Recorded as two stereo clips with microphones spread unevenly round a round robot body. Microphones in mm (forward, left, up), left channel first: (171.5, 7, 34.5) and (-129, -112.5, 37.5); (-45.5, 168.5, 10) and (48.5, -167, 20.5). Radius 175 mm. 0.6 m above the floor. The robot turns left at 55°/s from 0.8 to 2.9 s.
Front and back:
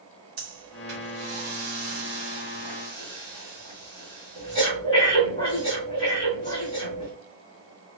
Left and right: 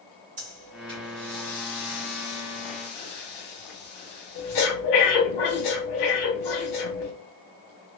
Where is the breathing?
145° right, 1.3 m; by 7.1 s 100° left, 1.3 m.